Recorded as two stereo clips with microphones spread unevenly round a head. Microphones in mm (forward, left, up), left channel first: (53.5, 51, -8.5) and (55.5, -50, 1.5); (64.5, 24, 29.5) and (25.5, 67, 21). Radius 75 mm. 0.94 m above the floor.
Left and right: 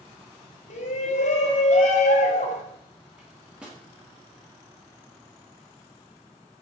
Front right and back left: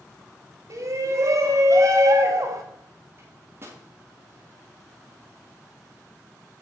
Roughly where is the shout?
Left.